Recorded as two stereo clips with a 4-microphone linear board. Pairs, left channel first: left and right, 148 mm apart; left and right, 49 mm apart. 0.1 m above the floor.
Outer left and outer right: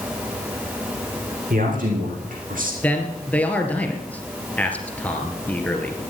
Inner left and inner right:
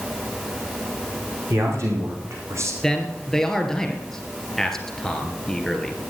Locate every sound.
1.5 s a man speaking: 65° right (ahead or behind), 6.5 m; by 2.7 s 70° right (ahead or behind), 5 m
2.8 s a man speaking: 10° left (ahead or behind), 2.5 m